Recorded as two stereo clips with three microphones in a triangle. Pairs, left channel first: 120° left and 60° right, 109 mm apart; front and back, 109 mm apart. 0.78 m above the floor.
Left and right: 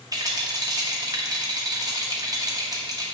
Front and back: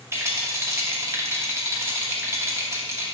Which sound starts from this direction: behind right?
A rattle, at 0.1 s.